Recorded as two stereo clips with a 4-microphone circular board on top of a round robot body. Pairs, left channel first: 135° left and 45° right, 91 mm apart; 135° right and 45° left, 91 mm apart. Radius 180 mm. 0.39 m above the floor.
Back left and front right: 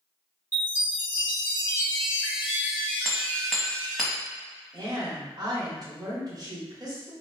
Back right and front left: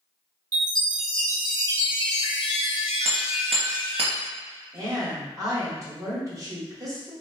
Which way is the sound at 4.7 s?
5° right.